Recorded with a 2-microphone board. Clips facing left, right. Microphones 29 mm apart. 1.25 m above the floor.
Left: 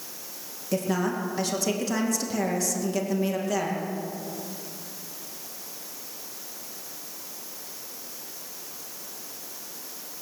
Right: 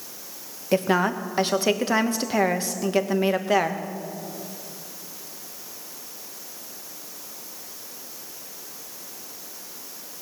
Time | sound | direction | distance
0.7 | a woman speaking | 35° right (ahead or behind) | 1.1 m